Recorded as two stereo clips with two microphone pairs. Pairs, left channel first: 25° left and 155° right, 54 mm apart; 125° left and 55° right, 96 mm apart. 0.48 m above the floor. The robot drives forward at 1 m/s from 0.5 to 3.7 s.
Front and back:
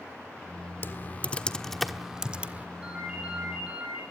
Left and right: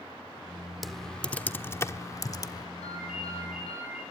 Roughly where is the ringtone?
Behind left.